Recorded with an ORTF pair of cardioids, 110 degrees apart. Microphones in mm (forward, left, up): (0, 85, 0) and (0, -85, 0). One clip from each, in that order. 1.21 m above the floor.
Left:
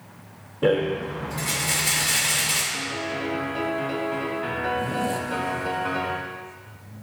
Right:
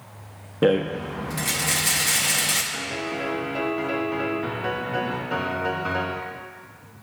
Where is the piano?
25° right, 1.3 m.